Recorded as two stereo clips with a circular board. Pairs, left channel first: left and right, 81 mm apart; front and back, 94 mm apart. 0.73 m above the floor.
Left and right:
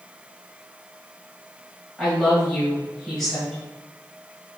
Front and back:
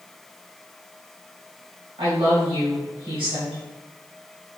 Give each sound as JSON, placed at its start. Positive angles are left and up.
{"t": 2.0, "sound": "a woman speaking", "azimuth_deg": 175, "distance_m": 3.5}